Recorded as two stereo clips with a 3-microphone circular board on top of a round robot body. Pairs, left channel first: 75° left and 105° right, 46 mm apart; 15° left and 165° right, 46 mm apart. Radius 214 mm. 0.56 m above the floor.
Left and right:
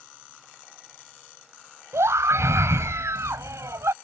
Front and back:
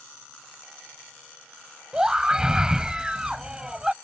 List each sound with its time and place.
1.9 s a scream: 90° right